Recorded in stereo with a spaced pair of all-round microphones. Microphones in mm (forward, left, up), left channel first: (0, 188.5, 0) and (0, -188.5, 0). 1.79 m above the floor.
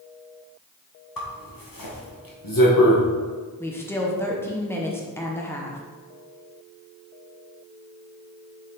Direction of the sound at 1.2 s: 60° left (ahead or behind).